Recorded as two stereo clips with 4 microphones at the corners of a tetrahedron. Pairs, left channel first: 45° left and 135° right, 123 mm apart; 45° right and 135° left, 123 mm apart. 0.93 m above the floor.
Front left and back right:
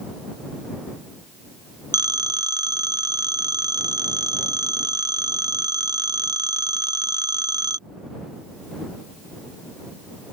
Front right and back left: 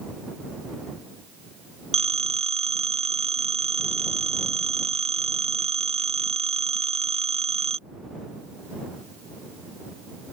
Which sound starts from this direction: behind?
A phone ringing, at 1.9 s.